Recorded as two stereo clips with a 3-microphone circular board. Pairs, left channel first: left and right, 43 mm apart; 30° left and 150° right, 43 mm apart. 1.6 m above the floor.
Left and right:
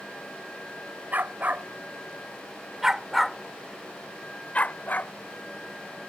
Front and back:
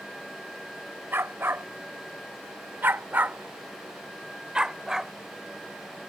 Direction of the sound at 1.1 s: 130° right.